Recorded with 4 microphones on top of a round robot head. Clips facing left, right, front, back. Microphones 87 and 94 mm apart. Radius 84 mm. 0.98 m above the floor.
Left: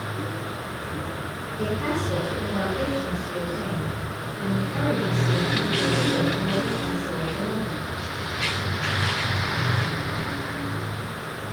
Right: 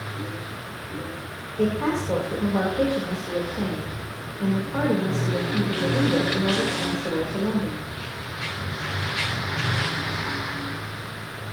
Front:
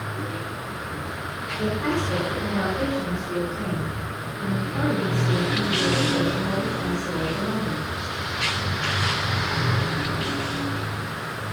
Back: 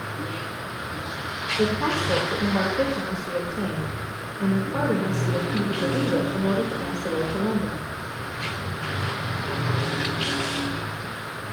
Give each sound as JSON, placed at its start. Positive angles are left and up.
{"t": 1.6, "sound": "a woman speaking", "azimuth_deg": -140, "distance_m": 3.5}